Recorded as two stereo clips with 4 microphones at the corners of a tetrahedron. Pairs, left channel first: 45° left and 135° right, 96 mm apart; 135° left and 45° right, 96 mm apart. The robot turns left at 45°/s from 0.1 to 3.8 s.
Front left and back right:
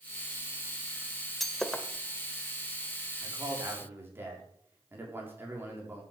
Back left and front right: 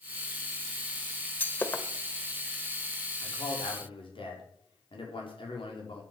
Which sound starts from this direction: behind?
A man speaking, at 3.2 s.